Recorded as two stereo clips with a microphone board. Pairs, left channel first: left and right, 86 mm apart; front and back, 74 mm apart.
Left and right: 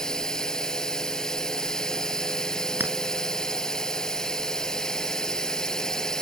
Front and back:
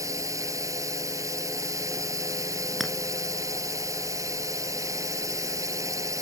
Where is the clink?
90° right.